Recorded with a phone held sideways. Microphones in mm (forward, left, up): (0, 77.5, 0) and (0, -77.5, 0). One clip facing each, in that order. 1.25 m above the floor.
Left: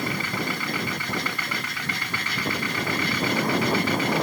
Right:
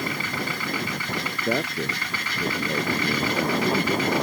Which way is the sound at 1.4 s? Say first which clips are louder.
Right 8 dB; 65° right (ahead or behind).